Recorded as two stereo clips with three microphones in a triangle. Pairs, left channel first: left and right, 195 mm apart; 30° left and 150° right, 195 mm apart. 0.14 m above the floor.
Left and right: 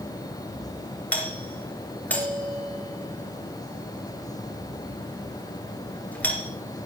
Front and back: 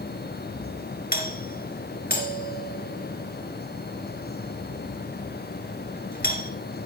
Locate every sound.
1.1 s a doorbell: 10° left, 2.5 m